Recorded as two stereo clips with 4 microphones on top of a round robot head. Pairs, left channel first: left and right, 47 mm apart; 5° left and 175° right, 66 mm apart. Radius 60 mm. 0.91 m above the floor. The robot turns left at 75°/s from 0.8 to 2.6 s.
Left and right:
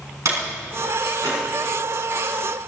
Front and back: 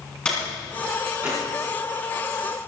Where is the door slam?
75° right, 7 m; by 1.4 s 120° right, 7 m.